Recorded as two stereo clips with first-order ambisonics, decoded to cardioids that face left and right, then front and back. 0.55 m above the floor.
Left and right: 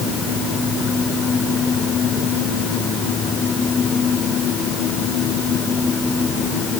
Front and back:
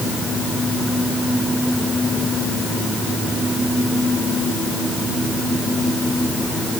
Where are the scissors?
No scissors in this recording.